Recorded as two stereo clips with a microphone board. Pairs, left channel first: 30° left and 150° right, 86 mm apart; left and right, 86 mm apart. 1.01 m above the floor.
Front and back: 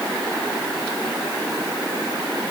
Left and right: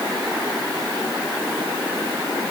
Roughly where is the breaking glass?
No breaking glass in this recording.